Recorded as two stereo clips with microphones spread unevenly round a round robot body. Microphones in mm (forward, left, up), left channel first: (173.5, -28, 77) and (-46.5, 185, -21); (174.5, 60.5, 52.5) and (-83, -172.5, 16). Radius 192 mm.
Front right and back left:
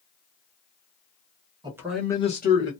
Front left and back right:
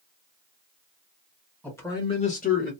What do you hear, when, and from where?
1.6 s a man speaking: 135° left, 1.4 m; by 2.7 s 5° right, 1.4 m